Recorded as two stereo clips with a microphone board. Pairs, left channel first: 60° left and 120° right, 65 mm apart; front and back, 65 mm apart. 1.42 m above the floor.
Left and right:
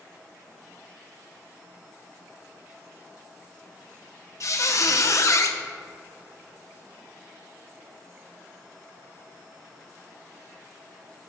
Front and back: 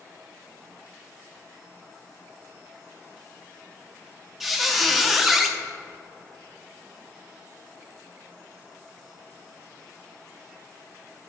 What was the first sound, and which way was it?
A squeak, 95° left.